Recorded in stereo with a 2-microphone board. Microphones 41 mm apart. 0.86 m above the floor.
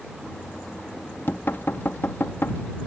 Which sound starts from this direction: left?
Knocking, at 0.2 s.